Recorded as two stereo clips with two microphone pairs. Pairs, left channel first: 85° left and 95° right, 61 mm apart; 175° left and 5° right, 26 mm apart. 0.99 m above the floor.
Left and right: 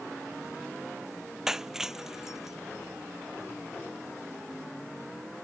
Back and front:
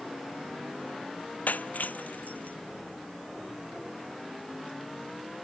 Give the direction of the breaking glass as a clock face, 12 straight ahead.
6 o'clock.